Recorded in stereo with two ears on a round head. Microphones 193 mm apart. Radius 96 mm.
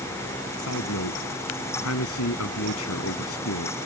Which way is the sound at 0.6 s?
75° left (ahead or behind).